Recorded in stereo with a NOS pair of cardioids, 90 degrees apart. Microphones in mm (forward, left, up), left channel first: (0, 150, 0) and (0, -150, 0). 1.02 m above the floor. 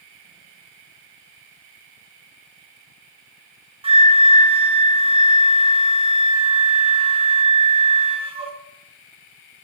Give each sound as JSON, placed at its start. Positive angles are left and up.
{"t": 3.8, "sound": "a flute", "azimuth_deg": -20, "distance_m": 0.7}